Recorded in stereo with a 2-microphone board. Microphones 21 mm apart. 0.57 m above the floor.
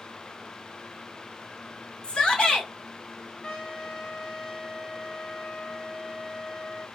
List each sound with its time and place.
2.0 s a shout: 50° left (ahead or behind), 3.5 m
3.4 s a trumpet: 35° left (ahead or behind), 3 m